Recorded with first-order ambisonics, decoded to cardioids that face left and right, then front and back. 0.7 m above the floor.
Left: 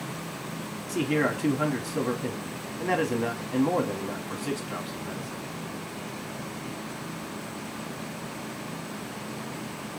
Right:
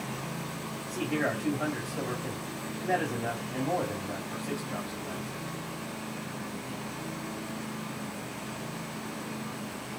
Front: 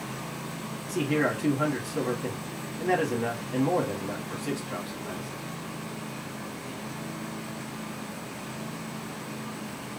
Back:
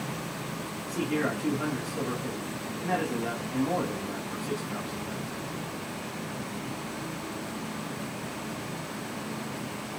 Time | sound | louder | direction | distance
0.9 | a man speaking | left 4 dB, front 3 dB | 65° left | 1.7 m